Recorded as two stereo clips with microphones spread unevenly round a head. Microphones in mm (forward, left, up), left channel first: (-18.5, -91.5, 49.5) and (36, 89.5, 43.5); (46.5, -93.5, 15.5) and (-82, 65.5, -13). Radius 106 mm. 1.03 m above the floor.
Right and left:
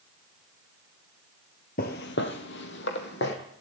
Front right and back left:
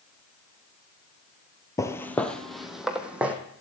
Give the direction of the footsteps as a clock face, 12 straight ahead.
4 o'clock.